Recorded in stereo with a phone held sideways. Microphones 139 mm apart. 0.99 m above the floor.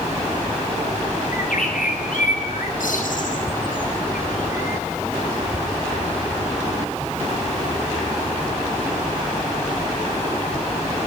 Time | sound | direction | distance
1.3 | a bird | 85° left | 6.5 m